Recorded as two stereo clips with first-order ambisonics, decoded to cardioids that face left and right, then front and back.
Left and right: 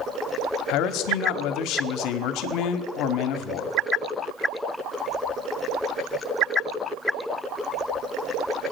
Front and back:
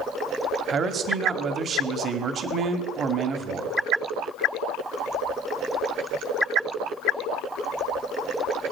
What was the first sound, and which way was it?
A man speaking, 120° left.